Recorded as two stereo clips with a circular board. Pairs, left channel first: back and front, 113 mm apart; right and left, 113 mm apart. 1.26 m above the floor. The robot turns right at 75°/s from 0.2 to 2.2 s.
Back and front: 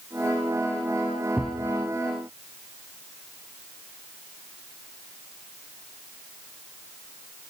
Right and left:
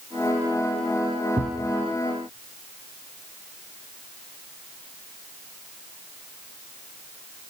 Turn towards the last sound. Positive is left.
turn(degrees=135)